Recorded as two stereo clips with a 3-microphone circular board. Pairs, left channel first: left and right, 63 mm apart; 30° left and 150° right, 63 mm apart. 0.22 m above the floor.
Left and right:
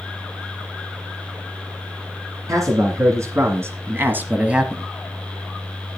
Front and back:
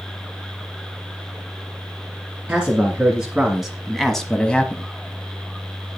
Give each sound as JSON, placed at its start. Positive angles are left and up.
{"t": 2.5, "sound": "a man speaking", "azimuth_deg": -80, "distance_m": 2.5}